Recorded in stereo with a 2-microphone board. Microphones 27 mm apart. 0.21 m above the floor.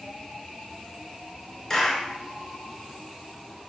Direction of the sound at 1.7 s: 15° left (ahead or behind).